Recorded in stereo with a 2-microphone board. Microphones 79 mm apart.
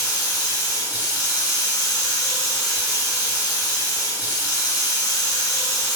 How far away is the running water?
About 1.5 m.